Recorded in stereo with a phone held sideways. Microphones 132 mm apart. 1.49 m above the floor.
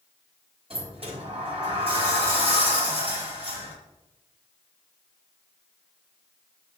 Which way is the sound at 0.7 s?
45° right (ahead or behind).